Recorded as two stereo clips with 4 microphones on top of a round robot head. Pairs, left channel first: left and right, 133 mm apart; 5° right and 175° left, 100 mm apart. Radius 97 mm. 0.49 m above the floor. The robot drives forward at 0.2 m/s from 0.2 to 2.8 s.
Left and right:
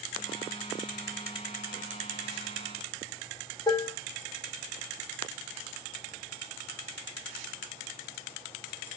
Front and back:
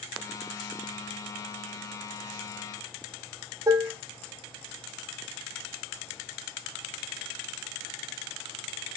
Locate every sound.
3.7 s dishes clattering: 135° left, 0.5 m